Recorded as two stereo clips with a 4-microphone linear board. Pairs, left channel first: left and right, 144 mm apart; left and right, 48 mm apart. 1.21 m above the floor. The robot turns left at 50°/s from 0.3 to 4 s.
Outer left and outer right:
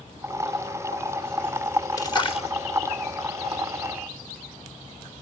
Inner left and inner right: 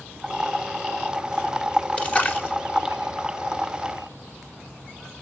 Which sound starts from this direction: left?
A splash, at 2.0 s.